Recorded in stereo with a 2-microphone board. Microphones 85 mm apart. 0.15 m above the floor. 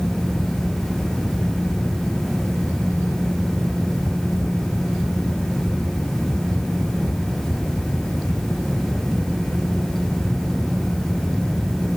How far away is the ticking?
I don't hear ticking.